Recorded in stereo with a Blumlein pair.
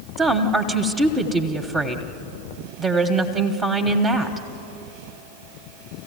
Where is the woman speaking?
15° right, 1.5 m.